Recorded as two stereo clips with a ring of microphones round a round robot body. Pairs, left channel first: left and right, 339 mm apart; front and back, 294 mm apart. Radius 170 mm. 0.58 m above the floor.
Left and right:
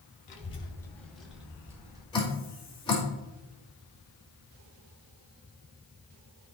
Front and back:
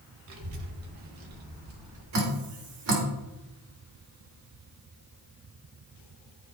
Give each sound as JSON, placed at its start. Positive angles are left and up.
{"t": 0.3, "sound": "a child speaking", "azimuth_deg": 160, "distance_m": 1.7}
{"t": 2.1, "sound": "dripping", "azimuth_deg": 165, "distance_m": 2.5}